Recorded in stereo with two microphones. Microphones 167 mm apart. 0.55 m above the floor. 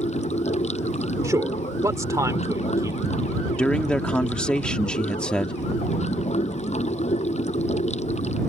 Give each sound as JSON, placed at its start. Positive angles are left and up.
{"t": 0.0, "sound": "running water", "side_deg": 45}
{"t": 1.2, "sound": "a man speaking", "side_deg": -20}
{"t": 3.6, "sound": "a man speaking", "side_deg": 5}